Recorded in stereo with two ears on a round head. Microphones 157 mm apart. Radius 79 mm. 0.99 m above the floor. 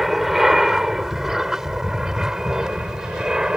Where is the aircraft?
Centre (ahead or behind); by 3.6 s 5° right (ahead or behind).